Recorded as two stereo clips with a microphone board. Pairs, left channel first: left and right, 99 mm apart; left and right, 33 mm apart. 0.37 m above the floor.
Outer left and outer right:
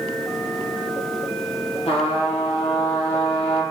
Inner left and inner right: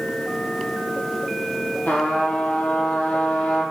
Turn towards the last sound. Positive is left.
turn(degrees=80)